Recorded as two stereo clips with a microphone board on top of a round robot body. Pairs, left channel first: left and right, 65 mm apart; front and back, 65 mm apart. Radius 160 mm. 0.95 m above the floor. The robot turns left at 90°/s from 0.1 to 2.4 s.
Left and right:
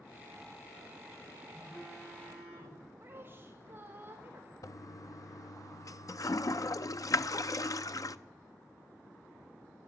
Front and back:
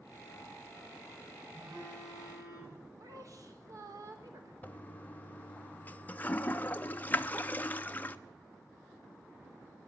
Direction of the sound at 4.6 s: 65° left.